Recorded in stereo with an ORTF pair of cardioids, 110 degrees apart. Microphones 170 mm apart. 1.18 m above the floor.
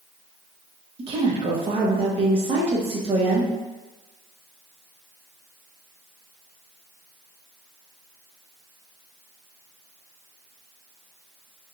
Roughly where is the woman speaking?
Ahead right.